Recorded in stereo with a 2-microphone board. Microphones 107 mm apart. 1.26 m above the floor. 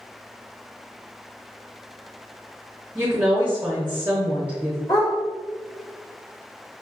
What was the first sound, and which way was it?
A woman speaking, 20° right (ahead or behind).